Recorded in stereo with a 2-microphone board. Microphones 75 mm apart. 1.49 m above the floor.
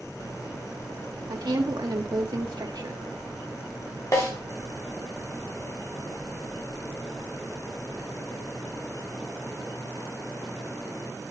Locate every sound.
1.3 s a woman speaking: 65° right (ahead or behind), 1.9 m
4.1 s a snare drum: 50° left (ahead or behind), 4 m